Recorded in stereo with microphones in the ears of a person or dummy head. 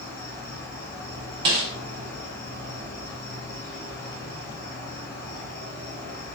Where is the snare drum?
20° right (ahead or behind), 0.7 m.